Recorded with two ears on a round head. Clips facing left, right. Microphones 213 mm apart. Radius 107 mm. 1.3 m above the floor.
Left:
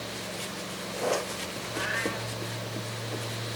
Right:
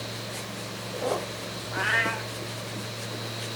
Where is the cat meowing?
70° right (ahead or behind), 2 m.